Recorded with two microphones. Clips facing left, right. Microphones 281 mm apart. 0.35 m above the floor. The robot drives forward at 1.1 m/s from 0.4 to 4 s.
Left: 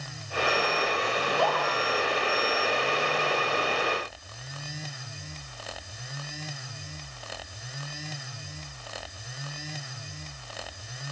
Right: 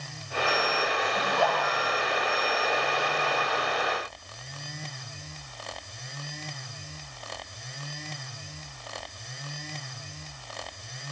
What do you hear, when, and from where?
1.2 s a scream: 70° right (ahead or behind), 8.5 m; by 1.7 s 75° right (ahead or behind), 8.5 m